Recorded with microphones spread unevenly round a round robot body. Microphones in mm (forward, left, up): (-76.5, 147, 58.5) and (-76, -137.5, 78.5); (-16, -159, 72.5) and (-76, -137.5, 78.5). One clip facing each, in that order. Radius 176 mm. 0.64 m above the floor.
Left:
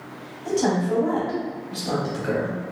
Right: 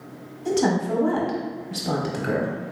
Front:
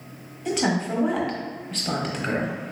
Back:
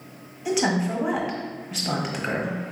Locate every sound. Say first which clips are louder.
0.5 s a woman speaking: even, back 1 dB; 115° right, 1.2 m